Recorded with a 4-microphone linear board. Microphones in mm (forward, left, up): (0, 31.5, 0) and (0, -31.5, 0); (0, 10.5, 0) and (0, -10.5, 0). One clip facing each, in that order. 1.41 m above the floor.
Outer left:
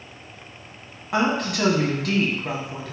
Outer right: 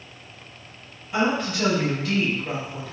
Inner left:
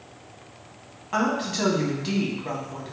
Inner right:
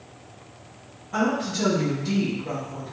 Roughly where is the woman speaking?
Left.